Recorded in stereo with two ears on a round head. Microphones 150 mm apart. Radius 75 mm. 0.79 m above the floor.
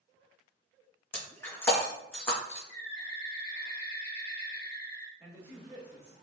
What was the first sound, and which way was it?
Breaking glass, 15° left (ahead or behind).